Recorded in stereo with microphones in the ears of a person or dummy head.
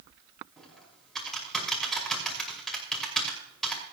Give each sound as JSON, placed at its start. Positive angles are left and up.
{"t": 0.6, "sound": "typing on a keyboard", "side_deg": 5, "distance_m": 6.0}